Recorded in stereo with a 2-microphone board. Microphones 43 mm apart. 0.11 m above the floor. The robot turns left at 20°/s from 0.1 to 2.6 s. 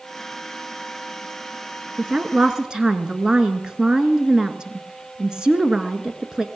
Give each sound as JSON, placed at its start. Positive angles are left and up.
{"t": 2.0, "sound": "a woman speaking", "side_deg": -20, "distance_m": 1.4}